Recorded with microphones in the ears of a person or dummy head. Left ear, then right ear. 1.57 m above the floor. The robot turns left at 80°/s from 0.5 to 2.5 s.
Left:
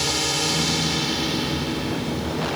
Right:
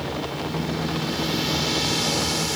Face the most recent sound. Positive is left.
turn(degrees=-95)